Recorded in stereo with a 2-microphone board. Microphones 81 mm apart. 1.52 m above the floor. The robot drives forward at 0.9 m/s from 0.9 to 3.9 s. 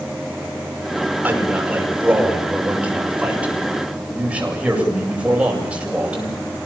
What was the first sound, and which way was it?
A man speaking, 20° right (ahead or behind).